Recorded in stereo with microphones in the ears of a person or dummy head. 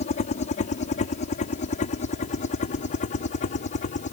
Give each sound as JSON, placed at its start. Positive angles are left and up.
{"t": 0.0, "sound": "a helicopter", "side_deg": 40}